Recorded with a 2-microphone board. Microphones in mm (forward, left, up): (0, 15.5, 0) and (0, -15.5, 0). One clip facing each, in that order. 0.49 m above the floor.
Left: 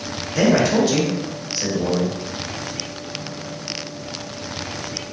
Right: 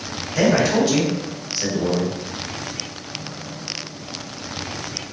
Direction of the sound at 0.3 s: 5° left (ahead or behind).